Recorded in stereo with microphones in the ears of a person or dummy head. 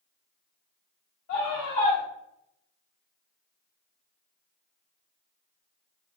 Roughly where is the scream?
Left.